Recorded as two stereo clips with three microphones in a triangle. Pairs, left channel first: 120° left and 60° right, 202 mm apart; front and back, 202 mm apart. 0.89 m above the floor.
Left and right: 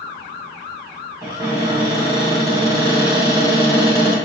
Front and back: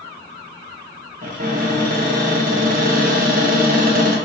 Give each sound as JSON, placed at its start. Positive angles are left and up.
{"t": 1.2, "sound": "a cupboard door", "azimuth_deg": -130, "distance_m": 0.9}